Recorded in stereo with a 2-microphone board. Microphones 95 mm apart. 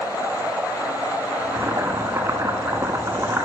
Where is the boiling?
30° right (ahead or behind), 0.9 m.